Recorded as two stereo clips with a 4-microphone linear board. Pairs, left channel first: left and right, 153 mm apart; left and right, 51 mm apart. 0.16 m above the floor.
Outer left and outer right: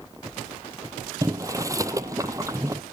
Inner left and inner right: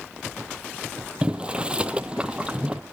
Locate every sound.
1.2 s boiling: 20° right (ahead or behind), 0.8 m